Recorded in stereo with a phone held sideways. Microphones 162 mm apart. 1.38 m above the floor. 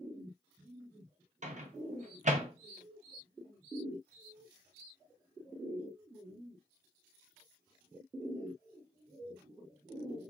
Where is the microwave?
50° right (ahead or behind), 0.9 m.